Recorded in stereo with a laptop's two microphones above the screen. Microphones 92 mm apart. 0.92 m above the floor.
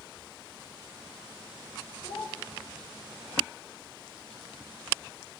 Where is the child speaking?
55° left (ahead or behind), 1.6 m.